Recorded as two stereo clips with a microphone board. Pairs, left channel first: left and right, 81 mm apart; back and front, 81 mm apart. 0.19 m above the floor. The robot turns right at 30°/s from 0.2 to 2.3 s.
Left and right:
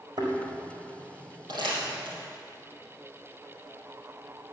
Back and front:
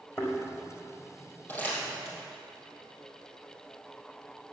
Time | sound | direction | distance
0.2 | a thud | 125° right | 4.5 m
1.5 | crumpling | 115° right | 5.5 m